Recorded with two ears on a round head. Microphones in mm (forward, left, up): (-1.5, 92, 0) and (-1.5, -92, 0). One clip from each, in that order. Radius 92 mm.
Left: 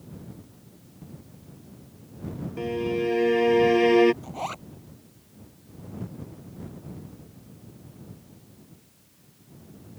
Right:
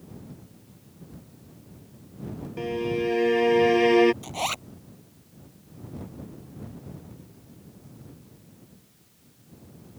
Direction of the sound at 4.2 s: 80° right.